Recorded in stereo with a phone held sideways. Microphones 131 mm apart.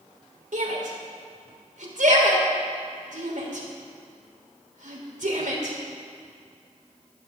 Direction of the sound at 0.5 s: 80° right.